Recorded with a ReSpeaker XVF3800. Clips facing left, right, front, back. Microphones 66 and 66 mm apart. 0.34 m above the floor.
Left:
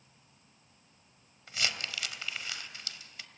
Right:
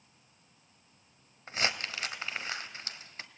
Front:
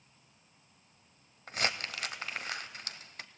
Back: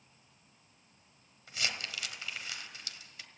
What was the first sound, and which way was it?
Crumpling, 35° right.